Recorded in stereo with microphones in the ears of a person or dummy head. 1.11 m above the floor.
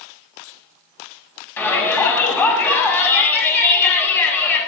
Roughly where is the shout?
Centre.